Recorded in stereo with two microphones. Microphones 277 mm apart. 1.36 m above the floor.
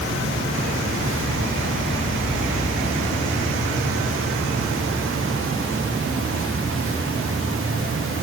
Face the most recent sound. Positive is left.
No sound to turn to.